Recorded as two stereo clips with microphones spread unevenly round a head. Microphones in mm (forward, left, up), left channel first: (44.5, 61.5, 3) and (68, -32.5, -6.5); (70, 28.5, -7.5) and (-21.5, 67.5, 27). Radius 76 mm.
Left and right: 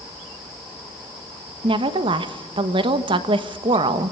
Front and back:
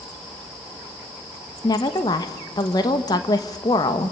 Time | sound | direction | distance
1.6 | a woman speaking | 60° right | 1.2 m